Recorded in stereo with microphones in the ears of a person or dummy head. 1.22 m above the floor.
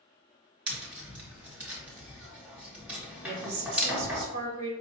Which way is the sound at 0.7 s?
5° right (ahead or behind).